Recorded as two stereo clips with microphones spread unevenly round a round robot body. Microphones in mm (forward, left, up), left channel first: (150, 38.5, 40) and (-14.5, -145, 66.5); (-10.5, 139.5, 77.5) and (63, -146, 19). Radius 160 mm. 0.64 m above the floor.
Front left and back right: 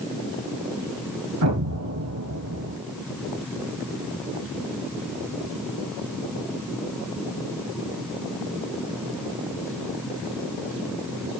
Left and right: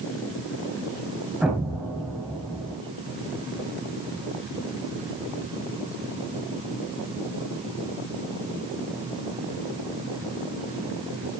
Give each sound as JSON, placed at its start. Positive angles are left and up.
{"t": 1.4, "sound": "an explosion", "azimuth_deg": -165, "distance_m": 3.0}